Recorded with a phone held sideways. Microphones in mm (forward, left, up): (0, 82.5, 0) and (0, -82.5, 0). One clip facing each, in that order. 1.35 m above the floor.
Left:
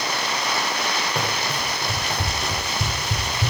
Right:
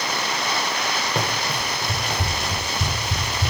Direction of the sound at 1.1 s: 15° right (ahead or behind).